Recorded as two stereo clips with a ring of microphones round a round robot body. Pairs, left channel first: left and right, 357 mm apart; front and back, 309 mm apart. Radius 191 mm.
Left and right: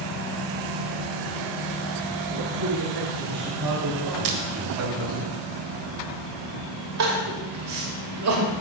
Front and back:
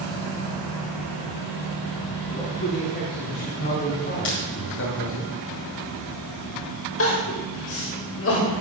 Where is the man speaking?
70° right, 6 m; by 5.2 s 40° right, 2 m.